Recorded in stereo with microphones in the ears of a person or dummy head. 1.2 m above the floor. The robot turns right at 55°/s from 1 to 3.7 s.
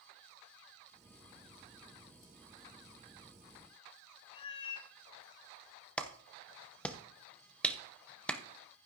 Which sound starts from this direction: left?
A cat meowing, at 4.3 s.